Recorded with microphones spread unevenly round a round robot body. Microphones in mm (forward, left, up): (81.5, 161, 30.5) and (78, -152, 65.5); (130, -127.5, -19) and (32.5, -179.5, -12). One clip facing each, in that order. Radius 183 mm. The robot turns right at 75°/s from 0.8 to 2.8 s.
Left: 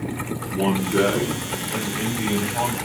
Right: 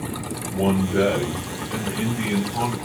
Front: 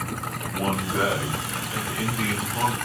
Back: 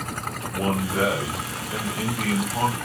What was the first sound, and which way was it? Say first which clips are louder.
A man speaking: even, back 1 dB; 130° left.